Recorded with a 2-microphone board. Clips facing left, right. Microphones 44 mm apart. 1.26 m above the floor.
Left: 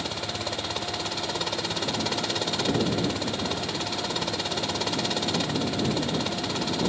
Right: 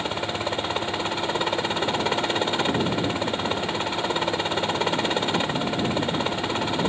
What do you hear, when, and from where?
0.0 s a helicopter: 30° right (ahead or behind)